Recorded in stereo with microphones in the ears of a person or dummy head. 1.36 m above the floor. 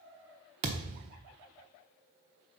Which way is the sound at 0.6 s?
30° right (ahead or behind).